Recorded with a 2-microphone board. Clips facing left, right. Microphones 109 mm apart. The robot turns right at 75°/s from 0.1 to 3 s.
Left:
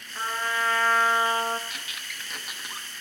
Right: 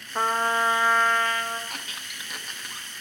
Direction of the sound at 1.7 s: 50° right (ahead or behind).